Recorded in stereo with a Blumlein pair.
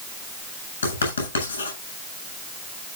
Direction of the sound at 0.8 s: 70° left.